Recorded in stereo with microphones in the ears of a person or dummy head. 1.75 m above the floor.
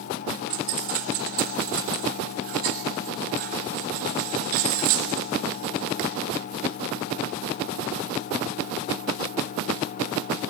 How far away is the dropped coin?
About 1.5 m.